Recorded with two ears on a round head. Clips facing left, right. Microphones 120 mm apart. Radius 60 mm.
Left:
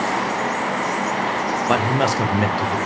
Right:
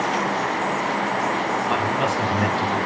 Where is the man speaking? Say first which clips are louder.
Left 6 dB; 70° left (ahead or behind), 0.8 m; by 2.8 s 10° left (ahead or behind), 1.2 m.